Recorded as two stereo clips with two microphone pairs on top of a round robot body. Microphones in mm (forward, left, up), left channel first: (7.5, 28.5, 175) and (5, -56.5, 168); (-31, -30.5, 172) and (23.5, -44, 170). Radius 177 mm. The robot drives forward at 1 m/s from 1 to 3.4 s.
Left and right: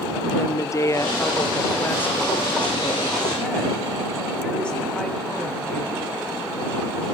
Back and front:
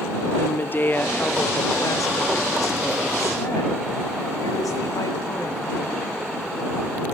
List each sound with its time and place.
0.4 s a woman speaking: 130° left, 1.3 m; by 6.0 s 170° left, 3 m